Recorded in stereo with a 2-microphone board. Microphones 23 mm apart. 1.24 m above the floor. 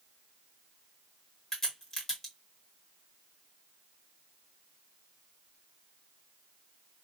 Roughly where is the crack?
Centre.